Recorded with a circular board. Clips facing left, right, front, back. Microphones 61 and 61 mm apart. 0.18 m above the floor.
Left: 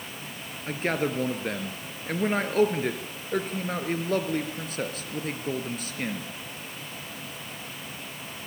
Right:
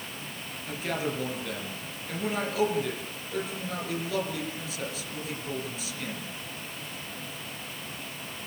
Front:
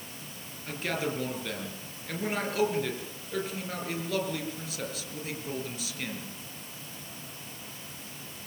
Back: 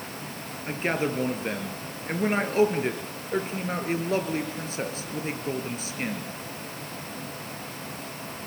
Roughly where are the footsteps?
No footsteps in this recording.